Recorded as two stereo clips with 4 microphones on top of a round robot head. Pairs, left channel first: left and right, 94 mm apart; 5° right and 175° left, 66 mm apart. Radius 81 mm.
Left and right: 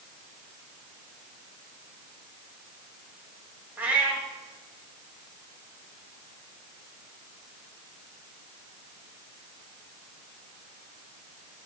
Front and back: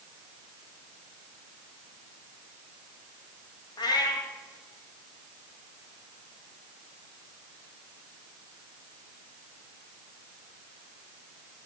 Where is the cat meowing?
15° right, 1.6 m.